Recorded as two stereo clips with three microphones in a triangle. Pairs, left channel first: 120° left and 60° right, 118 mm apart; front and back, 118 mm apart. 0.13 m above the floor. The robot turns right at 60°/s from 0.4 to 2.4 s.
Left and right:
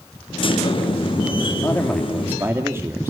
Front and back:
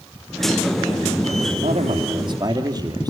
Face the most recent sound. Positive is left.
turn(degrees=-130)